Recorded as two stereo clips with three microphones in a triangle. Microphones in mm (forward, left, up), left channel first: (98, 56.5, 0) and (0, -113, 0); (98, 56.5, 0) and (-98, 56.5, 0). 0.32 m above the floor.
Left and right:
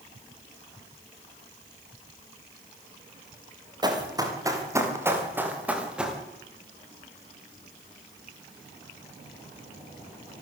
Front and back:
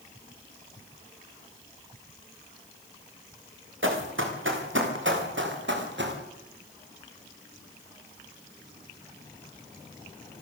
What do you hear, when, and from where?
3.8 s running footsteps: 170° left, 7 m; by 6.2 s 155° left, 6 m